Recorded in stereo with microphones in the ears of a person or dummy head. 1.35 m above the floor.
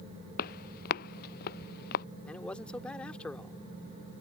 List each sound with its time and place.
0.4 s footsteps: 55° left (ahead or behind); by 2.0 s 60° left (ahead or behind)
2.3 s a man speaking: 10° left (ahead or behind)